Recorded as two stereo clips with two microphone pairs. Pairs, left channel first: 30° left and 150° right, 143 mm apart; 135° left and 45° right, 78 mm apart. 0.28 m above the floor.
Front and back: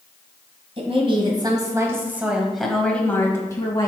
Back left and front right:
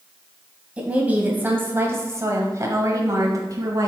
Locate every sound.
0.8 s a woman speaking: 115° right, 1.7 m; by 3.9 s 25° right, 1.7 m